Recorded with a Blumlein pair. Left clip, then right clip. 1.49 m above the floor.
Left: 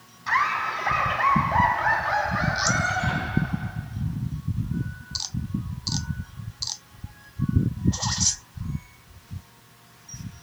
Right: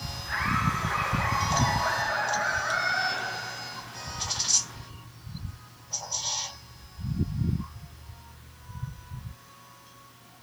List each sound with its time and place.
0.3 s laughter: 45° left, 8.5 m; by 3.7 s 70° left, 10.5 m